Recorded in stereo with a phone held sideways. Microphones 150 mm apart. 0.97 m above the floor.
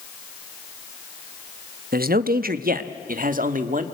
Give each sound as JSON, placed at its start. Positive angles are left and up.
{"t": 1.9, "sound": "a man speaking", "side_deg": -80, "distance_m": 0.9}